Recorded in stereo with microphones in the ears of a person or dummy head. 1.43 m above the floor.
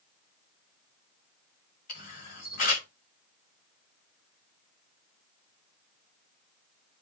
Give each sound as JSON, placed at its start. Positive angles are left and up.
{"t": 1.9, "sound": "a camera shutter", "side_deg": 55, "distance_m": 1.9}